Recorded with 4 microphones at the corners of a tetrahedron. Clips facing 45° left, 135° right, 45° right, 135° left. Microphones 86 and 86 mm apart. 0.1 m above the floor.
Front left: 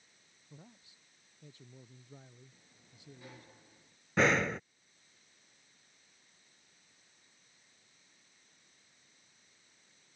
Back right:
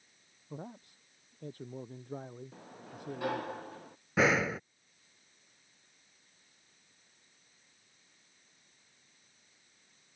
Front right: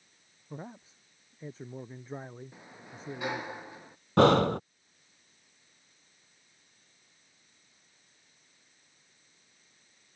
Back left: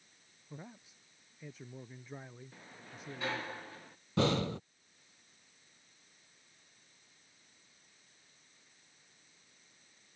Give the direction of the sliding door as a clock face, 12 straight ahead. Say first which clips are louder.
Back right 16 dB, front right 3 dB; 4 o'clock.